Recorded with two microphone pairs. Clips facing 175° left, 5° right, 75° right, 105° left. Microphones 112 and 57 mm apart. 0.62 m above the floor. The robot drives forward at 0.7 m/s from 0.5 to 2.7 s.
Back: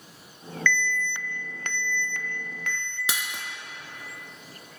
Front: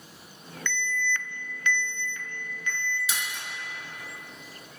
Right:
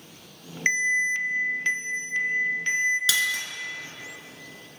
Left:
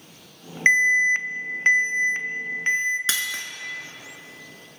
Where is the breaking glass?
165° left, 1.4 m.